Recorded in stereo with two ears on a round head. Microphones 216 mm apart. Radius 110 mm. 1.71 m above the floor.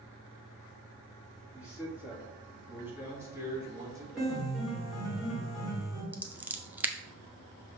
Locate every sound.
1.5 s a man speaking: 5° right (ahead or behind), 3 m; by 4.0 s 15° right (ahead or behind), 1.9 m
4.2 s a piano: centre (ahead or behind), 3 m
6.1 s scissors: 5° right (ahead or behind), 0.7 m